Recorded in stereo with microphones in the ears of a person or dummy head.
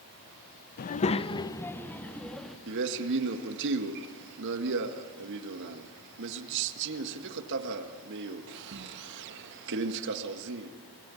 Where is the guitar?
I don't hear a guitar.